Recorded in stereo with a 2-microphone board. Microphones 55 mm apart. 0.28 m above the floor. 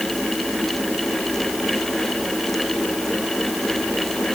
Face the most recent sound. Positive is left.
No sound to turn to.